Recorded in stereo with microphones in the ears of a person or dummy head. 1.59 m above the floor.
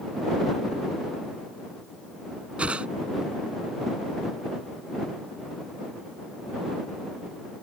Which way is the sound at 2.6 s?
10° right (ahead or behind).